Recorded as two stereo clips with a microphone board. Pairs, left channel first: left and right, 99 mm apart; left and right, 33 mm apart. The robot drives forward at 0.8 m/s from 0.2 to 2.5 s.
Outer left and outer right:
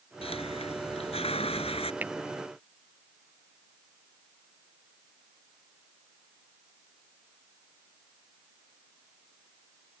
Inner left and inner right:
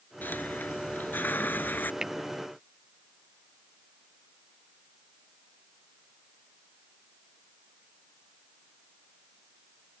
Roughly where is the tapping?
Centre.